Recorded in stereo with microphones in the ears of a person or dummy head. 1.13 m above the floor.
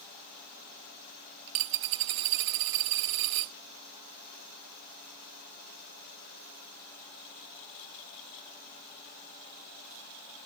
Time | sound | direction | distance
1.5 | a dropped coin | 55° right (ahead or behind) | ?